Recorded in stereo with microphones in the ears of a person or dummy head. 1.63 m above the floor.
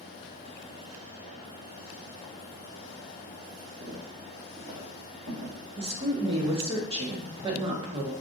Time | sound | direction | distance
3.8 | footsteps | 5° right (ahead or behind) | 1.7 m
5.8 | a woman speaking | 30° right (ahead or behind) | 0.7 m